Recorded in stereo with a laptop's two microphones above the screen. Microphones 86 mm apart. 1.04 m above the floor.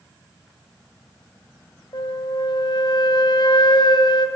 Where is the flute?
60° left (ahead or behind), 1.4 m.